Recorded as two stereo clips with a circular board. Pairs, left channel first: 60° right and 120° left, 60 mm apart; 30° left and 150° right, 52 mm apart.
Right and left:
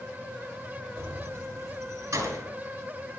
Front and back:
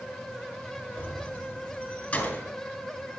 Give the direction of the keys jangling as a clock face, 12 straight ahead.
9 o'clock.